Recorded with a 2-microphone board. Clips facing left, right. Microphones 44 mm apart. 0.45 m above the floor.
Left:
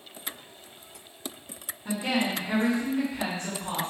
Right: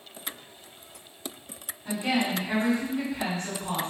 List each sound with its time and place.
1.9 s a woman speaking: 15° left (ahead or behind), 1.3 m